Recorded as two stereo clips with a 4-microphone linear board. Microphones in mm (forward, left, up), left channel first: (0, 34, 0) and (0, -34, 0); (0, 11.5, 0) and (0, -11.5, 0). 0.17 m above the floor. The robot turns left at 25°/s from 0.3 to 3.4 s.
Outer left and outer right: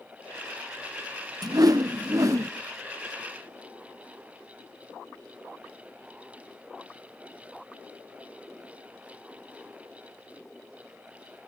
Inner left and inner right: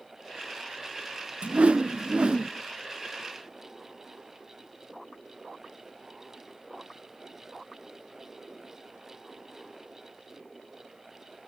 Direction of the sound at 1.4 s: 65° right (ahead or behind).